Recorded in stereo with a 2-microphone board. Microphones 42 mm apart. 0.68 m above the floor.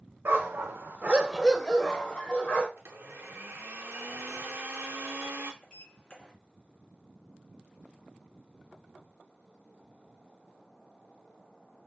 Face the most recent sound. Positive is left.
turn(degrees=20)  # may be behind; listen again after turning